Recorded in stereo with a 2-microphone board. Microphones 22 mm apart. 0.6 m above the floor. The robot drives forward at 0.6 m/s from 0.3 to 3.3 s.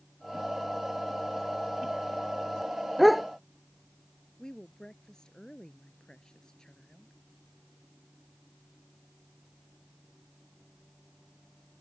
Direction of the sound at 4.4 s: 35° left (ahead or behind).